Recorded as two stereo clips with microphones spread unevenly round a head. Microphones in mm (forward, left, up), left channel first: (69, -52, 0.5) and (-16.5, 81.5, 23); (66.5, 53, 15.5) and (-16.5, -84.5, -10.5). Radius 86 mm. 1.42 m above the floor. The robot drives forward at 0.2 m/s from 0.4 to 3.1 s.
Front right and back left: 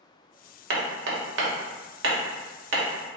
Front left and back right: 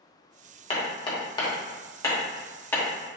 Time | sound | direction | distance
0.7 | hammering | 115° left | 1.1 m